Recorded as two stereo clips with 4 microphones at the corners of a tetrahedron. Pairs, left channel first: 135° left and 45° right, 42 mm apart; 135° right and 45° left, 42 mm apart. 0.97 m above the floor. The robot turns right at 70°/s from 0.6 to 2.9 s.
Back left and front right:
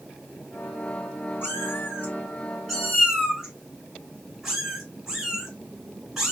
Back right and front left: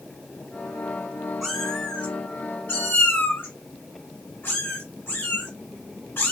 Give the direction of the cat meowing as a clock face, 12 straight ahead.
8 o'clock.